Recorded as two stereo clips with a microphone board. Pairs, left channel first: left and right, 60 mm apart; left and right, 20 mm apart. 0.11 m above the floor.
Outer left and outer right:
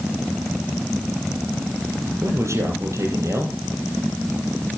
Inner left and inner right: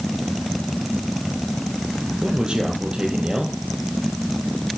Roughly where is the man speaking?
Right.